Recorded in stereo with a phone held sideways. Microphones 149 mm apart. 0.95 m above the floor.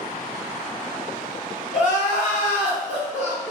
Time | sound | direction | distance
1.7 | crying | 10° right (ahead or behind) | 1.6 m